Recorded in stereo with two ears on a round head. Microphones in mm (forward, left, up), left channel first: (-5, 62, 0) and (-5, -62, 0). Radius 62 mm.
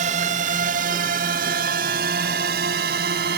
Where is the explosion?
I don't hear an explosion.